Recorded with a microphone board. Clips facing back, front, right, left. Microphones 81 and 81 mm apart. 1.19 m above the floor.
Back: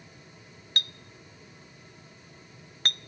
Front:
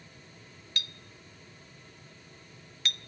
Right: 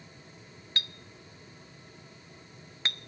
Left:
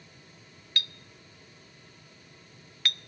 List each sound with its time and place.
0.8 s a clink: 150° right, 0.5 m